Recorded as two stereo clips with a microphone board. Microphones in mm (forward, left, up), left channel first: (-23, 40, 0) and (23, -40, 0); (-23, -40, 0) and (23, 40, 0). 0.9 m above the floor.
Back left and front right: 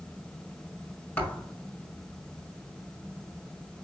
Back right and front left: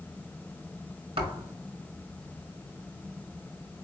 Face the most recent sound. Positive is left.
turn(degrees=50)